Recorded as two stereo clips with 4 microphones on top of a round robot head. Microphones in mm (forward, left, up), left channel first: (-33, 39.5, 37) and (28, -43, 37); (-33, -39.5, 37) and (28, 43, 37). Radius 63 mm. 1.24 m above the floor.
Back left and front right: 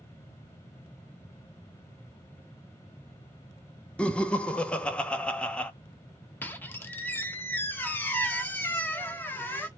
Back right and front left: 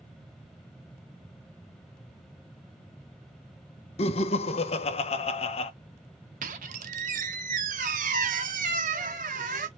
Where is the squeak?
55° left, 0.7 m.